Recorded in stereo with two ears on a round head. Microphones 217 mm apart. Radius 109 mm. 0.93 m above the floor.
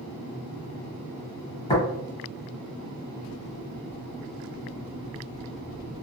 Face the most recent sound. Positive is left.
turn(degrees=25)  # may be behind; listen again after turning